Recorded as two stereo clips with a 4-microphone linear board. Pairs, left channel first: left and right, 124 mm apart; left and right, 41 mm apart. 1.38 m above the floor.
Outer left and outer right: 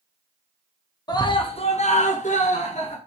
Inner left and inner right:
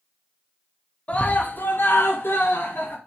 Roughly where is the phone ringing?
No phone ringing in this recording.